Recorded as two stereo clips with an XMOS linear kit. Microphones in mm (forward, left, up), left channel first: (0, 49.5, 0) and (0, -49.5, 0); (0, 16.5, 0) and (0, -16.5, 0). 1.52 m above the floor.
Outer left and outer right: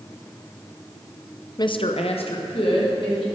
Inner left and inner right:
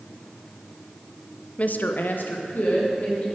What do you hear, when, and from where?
1.6 s a woman speaking: 40° left (ahead or behind), 0.5 m; by 3.2 s 60° left (ahead or behind), 2.5 m